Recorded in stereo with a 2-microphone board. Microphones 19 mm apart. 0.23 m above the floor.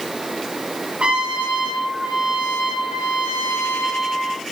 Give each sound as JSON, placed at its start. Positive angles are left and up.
{"t": 1.0, "sound": "a trumpet", "side_deg": -75, "distance_m": 3.5}